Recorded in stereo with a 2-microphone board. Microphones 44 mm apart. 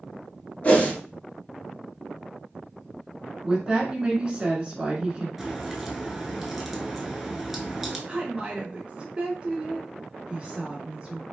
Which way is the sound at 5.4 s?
5° right (ahead or behind).